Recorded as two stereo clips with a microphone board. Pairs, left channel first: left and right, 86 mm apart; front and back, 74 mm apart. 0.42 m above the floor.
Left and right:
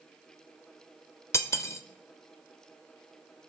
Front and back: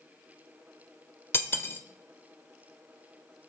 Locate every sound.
1.3 s cutlery clinking: 50° left, 0.9 m